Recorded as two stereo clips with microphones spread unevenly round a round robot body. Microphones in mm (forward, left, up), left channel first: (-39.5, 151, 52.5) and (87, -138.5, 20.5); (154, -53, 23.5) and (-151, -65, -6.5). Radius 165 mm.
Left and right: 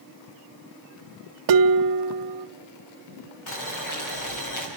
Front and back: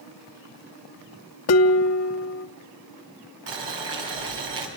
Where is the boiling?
150° left, 6.5 m.